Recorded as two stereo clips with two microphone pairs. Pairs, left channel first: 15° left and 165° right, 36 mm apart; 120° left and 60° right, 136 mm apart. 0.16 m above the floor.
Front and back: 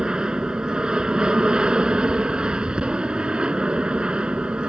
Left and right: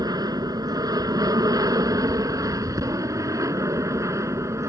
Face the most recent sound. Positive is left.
turn(degrees=-120)